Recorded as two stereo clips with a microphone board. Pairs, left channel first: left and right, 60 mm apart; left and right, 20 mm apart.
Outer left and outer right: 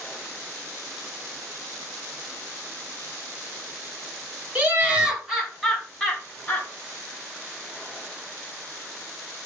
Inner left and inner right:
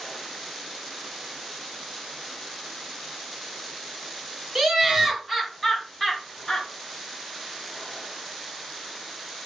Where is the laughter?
30° right (ahead or behind), 1.1 m; by 6.7 s 25° left (ahead or behind), 1.2 m.